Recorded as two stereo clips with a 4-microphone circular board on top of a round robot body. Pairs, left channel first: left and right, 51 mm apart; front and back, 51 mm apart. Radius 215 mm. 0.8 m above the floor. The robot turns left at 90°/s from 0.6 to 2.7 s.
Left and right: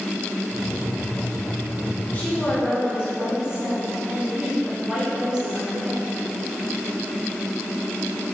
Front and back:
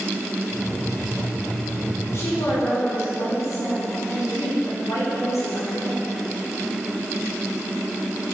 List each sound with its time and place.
2.1 s a woman speaking: 35° left, 3.5 m; by 6.1 s 15° right, 3.5 m